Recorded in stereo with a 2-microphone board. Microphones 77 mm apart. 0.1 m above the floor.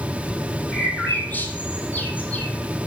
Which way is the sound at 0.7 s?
25° left (ahead or behind).